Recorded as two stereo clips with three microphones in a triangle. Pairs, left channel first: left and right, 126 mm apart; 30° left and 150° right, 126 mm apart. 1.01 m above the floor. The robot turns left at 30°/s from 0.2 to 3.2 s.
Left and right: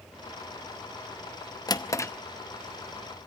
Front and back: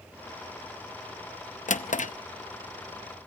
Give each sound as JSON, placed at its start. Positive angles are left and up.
{"t": 1.7, "sound": "a drawer", "azimuth_deg": 35, "distance_m": 0.7}